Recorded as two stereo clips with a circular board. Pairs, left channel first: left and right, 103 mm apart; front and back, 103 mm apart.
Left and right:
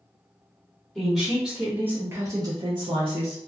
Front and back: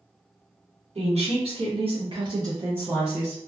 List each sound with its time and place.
0.9 s a woman speaking: 175° left, 1.1 m; by 3.4 s 85° right, 0.7 m